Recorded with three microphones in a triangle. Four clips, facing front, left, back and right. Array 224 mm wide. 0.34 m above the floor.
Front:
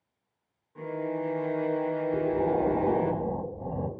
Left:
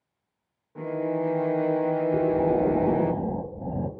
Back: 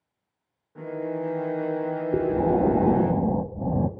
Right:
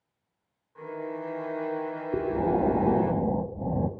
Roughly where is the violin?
Left.